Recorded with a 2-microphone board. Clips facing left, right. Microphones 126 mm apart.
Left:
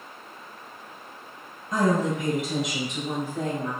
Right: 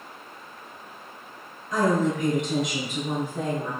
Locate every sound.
1.7 s a woman speaking: 25° left (ahead or behind), 1.3 m; by 3.7 s 25° right (ahead or behind), 1.4 m